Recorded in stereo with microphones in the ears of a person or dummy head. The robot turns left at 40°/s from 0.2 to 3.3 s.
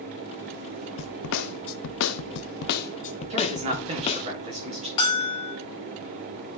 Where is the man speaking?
30° right (ahead or behind), 2 m.